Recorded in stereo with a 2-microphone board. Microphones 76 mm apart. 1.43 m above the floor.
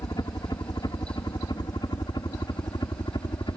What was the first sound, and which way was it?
A helicopter, 60° left (ahead or behind).